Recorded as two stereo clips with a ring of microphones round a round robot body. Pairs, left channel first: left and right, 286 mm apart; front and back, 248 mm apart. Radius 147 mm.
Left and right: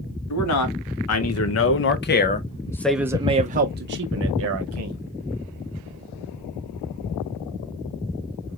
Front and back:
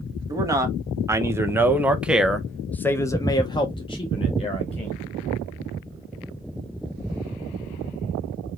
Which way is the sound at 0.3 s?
105° left.